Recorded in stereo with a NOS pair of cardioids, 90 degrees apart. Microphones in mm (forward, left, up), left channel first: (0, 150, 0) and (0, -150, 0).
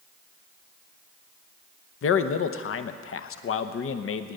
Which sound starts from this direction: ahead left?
A man speaking, at 2.0 s.